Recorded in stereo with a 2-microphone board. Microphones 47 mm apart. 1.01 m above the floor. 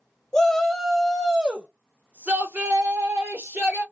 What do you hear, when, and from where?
0.3 s a shout: 10° left (ahead or behind), 1.0 m; by 3.8 s 65° right (ahead or behind), 1.6 m